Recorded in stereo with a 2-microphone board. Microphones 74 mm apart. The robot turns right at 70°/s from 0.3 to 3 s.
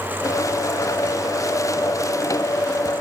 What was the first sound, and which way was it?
Only background noise.